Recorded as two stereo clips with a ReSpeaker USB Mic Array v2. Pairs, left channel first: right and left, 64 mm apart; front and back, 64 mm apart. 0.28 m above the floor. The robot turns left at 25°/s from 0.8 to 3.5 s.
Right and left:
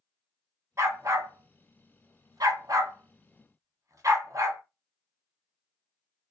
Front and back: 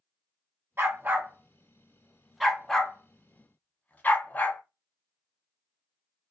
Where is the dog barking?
130° left, 0.7 m; by 4.6 s 60° left, 0.7 m.